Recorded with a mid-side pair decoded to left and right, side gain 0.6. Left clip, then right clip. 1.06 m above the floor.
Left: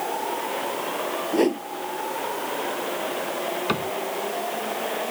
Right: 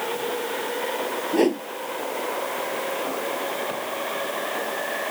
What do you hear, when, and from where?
1.3 s a whoosh: 5° right
3.7 s a cupboard door: 60° left